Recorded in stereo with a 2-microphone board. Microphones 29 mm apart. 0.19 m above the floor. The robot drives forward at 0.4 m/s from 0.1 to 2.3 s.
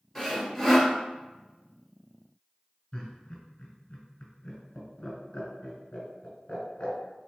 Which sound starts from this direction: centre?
Sawing, at 0.1 s.